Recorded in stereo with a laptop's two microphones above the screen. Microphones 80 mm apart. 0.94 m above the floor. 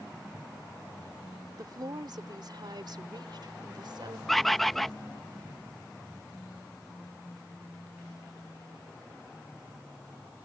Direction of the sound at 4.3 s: 5° left (ahead or behind).